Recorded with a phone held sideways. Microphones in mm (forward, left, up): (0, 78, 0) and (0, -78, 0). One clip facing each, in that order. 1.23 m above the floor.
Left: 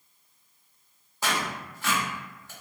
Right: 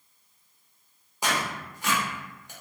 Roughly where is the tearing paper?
Centre.